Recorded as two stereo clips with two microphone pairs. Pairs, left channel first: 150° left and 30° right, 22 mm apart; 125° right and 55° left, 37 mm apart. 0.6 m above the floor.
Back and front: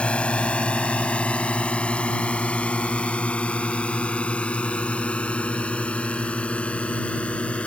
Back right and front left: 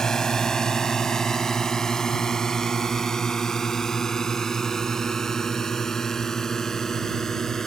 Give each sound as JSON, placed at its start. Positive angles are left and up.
{"t": 0.0, "sound": "a drone", "azimuth_deg": 160}